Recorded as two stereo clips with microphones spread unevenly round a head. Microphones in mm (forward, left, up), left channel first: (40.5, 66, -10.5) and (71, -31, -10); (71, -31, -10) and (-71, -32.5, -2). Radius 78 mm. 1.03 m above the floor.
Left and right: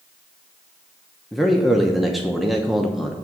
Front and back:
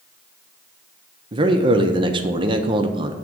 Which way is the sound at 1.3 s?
160° right.